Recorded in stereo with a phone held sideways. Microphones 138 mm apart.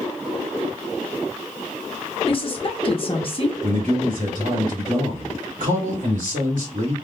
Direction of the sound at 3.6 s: 75° right (ahead or behind).